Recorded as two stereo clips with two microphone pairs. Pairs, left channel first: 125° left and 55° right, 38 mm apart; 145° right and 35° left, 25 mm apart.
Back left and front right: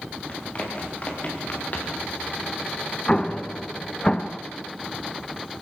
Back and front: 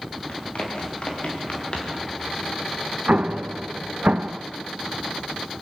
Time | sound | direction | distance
0.3 | running footsteps | straight behind | 6.5 m
3.1 | an explosion | 60° left | 0.7 m